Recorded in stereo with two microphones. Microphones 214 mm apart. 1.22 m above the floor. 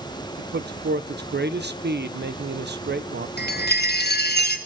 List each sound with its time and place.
0.4 s a man speaking: 50° right (ahead or behind), 0.8 m
3.4 s a chime: 50° left (ahead or behind), 1.5 m